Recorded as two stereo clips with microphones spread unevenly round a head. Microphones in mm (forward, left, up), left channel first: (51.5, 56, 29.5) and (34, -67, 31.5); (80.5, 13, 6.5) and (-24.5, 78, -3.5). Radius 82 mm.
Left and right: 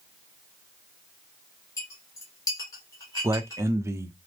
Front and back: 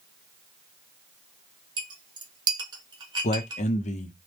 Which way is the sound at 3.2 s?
30° right.